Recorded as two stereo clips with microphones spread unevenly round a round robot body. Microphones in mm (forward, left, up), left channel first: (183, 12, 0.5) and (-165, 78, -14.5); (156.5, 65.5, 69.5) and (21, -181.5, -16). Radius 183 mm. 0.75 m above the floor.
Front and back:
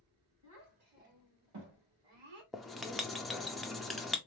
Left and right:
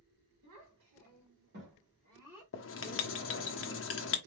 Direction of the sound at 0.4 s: 145° right.